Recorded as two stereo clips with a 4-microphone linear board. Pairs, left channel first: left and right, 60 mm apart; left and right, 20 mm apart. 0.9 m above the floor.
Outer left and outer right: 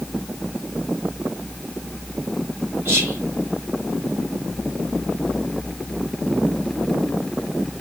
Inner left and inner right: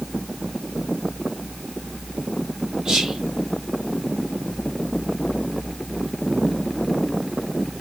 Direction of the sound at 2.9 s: 35° right (ahead or behind).